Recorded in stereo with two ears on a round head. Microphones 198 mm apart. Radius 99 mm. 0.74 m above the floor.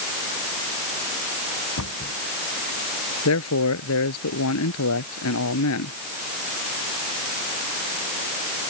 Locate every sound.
1.8 s a cupboard door: 80° left
3.2 s a man speaking: 80° left